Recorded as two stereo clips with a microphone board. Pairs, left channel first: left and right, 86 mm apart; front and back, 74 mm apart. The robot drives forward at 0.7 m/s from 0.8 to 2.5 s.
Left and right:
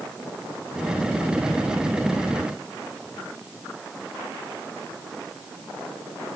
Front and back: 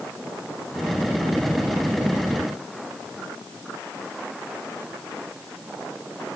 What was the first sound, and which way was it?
Only background noise.